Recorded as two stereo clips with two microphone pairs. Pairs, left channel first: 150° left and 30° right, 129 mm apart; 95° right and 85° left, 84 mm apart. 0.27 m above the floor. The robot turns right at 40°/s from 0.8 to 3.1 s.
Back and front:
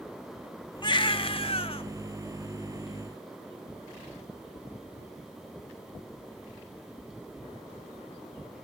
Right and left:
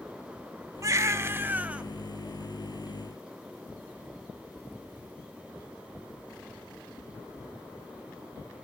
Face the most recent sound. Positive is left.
turn(degrees=-150)